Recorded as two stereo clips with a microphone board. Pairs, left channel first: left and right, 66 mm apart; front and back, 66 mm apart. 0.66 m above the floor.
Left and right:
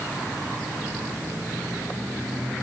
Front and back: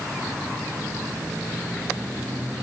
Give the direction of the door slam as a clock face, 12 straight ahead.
No door slam in this recording.